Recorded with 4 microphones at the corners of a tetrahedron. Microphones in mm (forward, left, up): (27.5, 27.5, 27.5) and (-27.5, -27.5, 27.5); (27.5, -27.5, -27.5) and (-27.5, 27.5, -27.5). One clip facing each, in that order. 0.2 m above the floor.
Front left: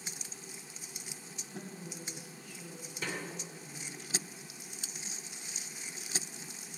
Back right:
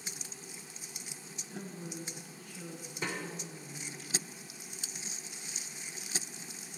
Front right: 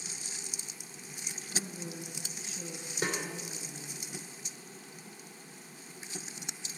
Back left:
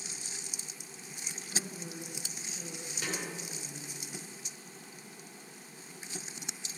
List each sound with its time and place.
1.5 s a woman speaking: 160° right, 3 m
3.0 s a snare drum: 85° right, 2 m